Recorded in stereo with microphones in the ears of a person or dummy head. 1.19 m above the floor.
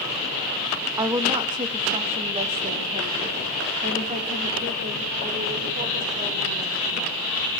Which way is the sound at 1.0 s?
15° right (ahead or behind).